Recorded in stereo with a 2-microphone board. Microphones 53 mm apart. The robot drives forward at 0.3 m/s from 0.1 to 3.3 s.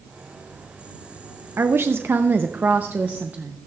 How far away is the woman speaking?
About 0.5 m.